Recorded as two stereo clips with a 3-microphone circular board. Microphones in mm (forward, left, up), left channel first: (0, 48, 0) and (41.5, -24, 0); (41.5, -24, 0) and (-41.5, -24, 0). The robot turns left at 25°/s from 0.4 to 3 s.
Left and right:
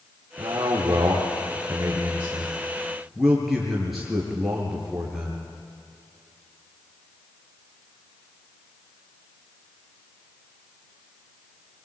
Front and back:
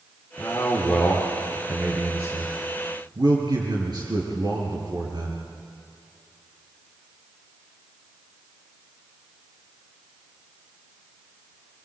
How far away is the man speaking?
About 4.5 m.